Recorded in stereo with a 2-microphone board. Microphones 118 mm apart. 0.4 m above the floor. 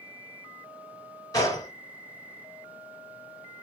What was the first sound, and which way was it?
A gunshot, 30° left (ahead or behind).